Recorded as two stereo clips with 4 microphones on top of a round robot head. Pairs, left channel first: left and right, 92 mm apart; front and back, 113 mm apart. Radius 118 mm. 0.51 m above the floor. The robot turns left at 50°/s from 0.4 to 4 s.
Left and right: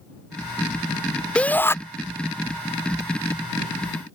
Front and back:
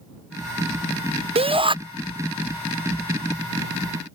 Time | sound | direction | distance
1.4 | a shout | 165° left | ?